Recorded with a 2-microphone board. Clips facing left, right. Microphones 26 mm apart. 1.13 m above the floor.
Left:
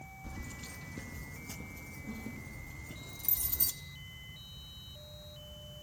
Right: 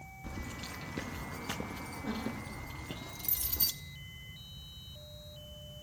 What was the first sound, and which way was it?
Keys jangling, 25° right (ahead or behind).